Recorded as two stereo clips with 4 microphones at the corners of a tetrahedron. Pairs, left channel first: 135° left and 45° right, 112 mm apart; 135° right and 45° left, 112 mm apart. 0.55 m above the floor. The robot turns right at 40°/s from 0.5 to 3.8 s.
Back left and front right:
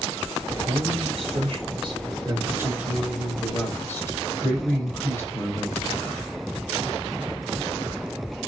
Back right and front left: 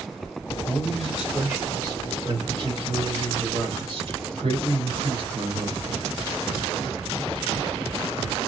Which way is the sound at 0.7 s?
55° right.